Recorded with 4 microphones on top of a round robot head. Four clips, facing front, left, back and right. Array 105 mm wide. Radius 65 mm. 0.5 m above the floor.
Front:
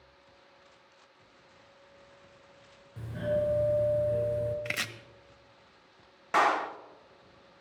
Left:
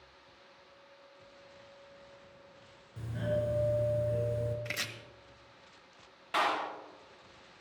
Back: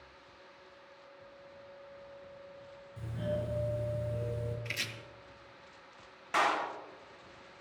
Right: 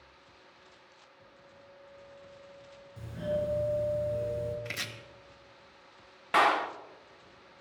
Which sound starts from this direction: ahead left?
A doorbell, at 3.0 s.